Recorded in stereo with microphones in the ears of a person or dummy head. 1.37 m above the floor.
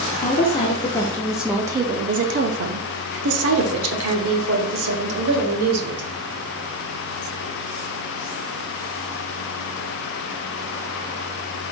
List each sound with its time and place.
0.2 s a woman speaking: 35° left (ahead or behind), 1.0 m; by 6.0 s 80° right, 2 m